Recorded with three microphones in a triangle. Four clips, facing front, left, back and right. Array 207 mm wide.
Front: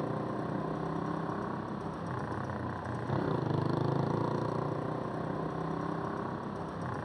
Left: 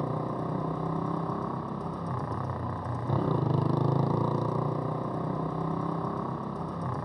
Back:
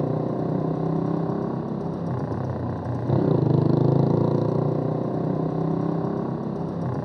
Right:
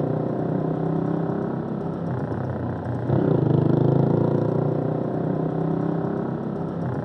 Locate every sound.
0.0 s a motorcycle: 130° right